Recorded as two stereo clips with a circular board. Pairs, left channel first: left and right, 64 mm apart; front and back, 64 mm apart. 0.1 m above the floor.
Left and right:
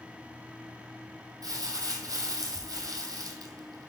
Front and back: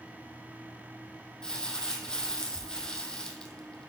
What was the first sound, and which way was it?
Crumpling, 80° right.